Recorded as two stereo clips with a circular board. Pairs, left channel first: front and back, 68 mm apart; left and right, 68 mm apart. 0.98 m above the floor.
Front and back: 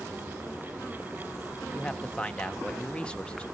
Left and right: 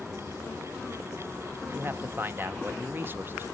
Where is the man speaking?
65° right, 0.7 m.